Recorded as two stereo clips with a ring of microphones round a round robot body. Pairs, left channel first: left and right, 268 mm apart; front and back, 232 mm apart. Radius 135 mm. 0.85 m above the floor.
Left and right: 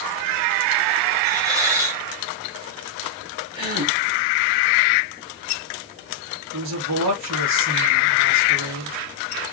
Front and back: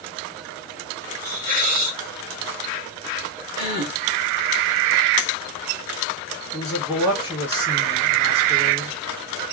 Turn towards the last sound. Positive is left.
turn(degrees=-100)